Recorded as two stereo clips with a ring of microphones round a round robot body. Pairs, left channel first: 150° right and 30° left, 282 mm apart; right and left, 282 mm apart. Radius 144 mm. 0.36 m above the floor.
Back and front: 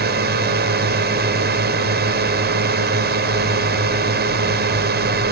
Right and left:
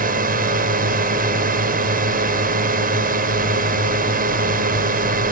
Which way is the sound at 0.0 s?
55° left.